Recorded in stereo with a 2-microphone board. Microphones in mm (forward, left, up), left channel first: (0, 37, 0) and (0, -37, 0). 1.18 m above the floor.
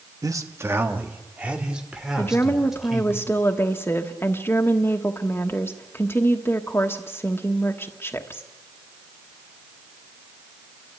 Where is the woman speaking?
30° left (ahead or behind), 1.2 m.